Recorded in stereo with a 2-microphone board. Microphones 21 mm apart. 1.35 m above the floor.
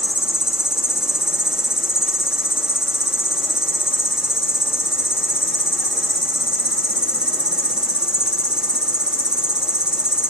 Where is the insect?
45° right (ahead or behind), 1.3 m.